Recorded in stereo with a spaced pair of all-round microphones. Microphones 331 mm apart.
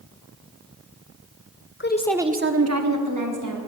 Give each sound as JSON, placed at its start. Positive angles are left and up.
{"t": 1.8, "sound": "a woman speaking", "side_deg": 35, "distance_m": 0.7}